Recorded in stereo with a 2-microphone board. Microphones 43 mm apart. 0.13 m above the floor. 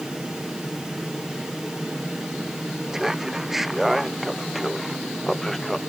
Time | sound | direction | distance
2.9 | laughter | 10° right (ahead or behind) | ?